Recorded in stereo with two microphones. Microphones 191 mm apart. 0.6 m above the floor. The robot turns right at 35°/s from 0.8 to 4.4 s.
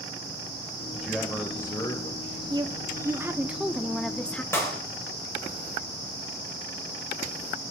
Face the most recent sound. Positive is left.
turn(degrees=15)  # may be behind; listen again after turning